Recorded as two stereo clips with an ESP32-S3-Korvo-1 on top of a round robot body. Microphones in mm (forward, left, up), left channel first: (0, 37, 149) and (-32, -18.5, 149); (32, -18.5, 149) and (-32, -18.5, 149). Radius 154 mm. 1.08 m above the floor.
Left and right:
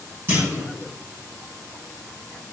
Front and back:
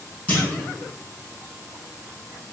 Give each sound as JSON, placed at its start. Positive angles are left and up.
{"t": 0.3, "sound": "a clunk", "azimuth_deg": -65, "distance_m": 5.5}